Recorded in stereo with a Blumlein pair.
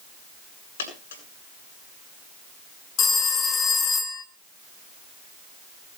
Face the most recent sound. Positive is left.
turn(degrees=25)